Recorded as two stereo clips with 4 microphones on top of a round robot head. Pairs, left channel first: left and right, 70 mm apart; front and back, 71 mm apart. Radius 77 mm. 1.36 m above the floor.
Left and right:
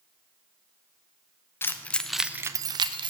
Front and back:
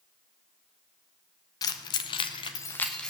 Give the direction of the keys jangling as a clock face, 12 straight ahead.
11 o'clock.